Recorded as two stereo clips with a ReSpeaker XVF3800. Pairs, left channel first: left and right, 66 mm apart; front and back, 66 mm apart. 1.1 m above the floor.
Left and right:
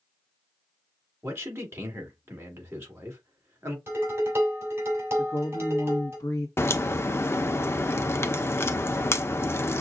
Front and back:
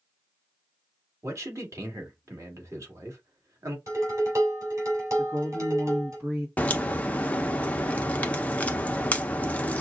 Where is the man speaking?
140° right, 1.9 m.